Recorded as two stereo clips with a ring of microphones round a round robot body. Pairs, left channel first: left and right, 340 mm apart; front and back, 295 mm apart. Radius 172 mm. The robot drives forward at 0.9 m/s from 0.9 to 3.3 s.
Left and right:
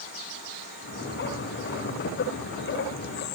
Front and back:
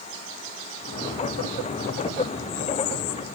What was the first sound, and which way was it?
Only background noise.